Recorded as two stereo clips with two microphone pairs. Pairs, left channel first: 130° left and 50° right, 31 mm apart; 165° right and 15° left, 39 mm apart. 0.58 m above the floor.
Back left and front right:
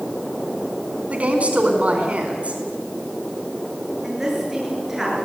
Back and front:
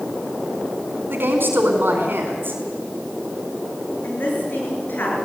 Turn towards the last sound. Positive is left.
turn(degrees=-130)